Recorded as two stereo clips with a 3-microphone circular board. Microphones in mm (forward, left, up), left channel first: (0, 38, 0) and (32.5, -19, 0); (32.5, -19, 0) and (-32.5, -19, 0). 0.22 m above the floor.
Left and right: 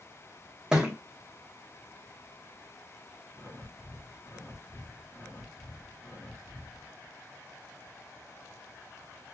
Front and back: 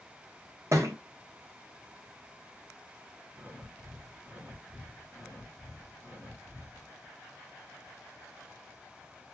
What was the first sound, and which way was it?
A thud, 135° right.